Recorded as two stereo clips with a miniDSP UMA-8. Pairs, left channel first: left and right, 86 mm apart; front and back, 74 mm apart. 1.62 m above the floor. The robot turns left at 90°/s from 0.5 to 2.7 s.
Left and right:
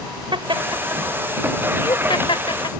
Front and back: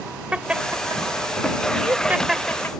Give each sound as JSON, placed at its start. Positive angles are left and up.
{"t": 0.3, "sound": "laughter", "azimuth_deg": -105}